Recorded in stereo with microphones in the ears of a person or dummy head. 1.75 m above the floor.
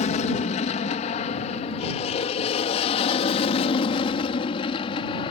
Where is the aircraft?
40° left (ahead or behind); by 5.3 s 30° left (ahead or behind).